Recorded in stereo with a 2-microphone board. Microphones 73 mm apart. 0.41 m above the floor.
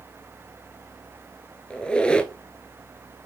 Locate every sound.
1.7 s a squeak: 15° left (ahead or behind), 0.6 m